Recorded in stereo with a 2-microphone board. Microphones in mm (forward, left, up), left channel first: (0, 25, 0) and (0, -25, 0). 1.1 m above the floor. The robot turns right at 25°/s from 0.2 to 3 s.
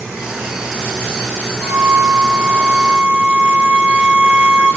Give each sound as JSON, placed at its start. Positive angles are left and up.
{"t": 1.6, "sound": "a flute", "azimuth_deg": -55, "distance_m": 1.1}